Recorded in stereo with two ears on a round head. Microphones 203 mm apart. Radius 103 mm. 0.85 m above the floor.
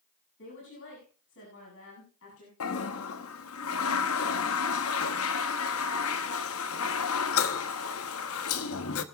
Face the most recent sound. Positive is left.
turn(degrees=65)  # may be behind; listen again after turning